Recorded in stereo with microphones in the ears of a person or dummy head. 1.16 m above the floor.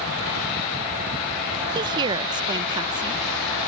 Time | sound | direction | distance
1.8 | a woman speaking | 25° right (ahead or behind) | ?